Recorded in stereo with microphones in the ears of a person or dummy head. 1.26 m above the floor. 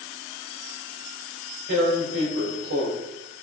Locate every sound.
1.7 s tearing paper: 75° right (ahead or behind), 3.5 m